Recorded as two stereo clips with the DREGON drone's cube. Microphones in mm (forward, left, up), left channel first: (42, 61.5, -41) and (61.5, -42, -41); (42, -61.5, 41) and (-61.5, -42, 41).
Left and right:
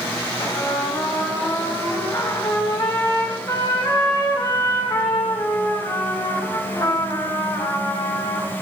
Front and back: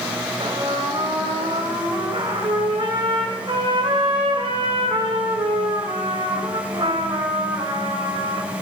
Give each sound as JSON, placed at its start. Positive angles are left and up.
{"t": 0.4, "sound": "a trumpet", "azimuth_deg": 145, "distance_m": 2.0}